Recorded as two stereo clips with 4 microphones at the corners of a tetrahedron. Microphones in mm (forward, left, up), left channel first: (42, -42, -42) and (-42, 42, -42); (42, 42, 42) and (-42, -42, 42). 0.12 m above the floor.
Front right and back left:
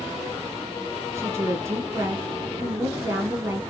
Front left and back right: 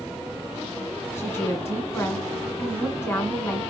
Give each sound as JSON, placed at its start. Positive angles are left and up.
{"t": 1.1, "sound": "a woman speaking", "azimuth_deg": 90, "distance_m": 1.8}